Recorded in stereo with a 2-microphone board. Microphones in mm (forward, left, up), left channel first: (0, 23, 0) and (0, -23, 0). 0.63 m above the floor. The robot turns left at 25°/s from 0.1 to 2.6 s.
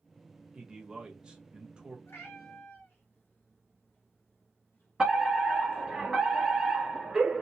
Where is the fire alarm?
10° right (ahead or behind), 1.7 m.